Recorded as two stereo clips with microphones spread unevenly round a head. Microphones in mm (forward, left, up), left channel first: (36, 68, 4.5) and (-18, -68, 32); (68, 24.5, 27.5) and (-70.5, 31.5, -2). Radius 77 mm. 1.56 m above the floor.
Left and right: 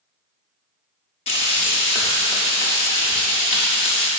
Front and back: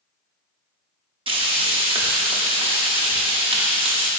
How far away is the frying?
About 2.5 m.